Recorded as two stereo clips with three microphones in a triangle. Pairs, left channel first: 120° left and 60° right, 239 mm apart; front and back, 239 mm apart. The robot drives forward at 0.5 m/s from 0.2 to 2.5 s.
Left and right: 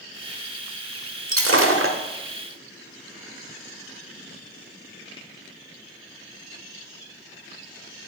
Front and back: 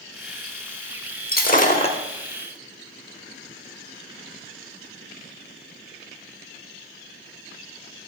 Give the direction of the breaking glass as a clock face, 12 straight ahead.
2 o'clock.